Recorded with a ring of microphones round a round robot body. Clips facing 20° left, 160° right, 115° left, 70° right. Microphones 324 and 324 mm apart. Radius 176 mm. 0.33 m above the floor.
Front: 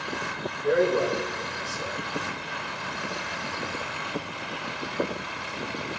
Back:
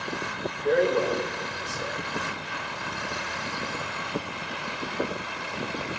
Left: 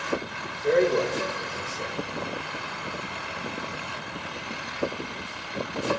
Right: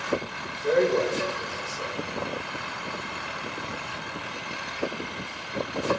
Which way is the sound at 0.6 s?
10° left.